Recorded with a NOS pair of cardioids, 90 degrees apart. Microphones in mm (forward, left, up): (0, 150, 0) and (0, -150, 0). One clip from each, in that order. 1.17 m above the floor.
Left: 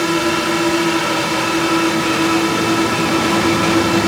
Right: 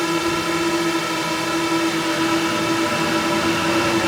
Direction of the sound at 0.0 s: 20° left.